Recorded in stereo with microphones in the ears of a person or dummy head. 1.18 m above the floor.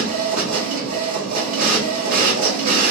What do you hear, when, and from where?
0.0 s a machine running: 45° right (ahead or behind), 1.2 m